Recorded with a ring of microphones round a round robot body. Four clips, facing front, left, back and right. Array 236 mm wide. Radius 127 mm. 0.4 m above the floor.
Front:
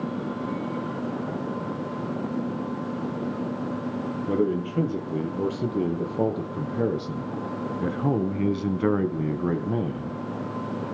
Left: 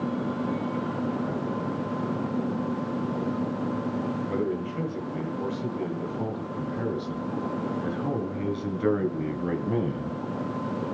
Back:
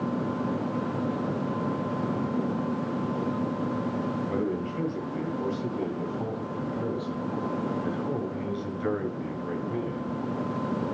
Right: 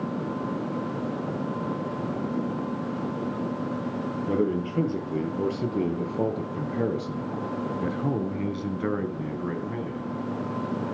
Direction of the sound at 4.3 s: 40° right.